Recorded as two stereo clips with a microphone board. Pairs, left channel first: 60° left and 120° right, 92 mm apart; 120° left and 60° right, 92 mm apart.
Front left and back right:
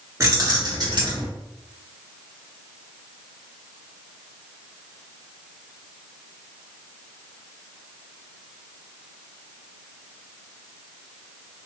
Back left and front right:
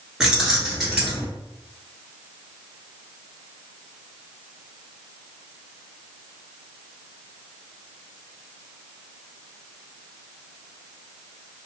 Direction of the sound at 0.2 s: 140° right.